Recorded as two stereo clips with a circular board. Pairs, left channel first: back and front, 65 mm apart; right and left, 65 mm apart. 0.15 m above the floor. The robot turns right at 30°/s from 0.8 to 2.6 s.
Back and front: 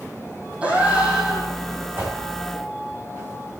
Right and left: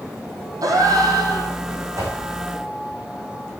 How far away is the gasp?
About 3 m.